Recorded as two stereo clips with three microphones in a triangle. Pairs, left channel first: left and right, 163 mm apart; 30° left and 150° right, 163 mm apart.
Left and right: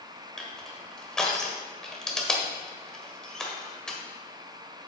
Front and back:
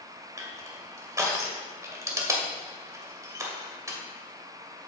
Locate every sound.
0.4 s crushing: 170° left, 1.6 m